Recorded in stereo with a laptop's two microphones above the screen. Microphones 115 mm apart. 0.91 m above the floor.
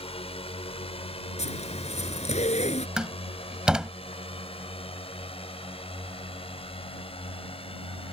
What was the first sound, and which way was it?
A drone, 55° left (ahead or behind).